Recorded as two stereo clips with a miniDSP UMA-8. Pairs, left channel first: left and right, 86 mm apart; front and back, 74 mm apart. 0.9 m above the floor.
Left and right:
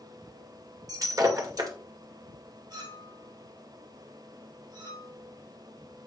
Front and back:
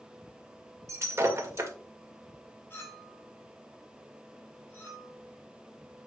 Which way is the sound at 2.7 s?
55° right.